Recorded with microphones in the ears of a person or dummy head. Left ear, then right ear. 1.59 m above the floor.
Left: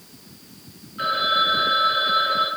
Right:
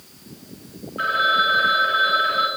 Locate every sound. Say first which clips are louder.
1.0 s a phone ringing: right 2 dB; 15° right (ahead or behind), 1.7 m